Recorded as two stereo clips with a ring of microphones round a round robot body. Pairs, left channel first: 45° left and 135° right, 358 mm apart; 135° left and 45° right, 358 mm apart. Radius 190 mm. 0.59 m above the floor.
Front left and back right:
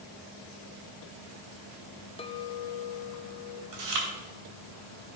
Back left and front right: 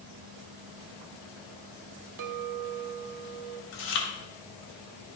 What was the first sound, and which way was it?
A clink, 30° right.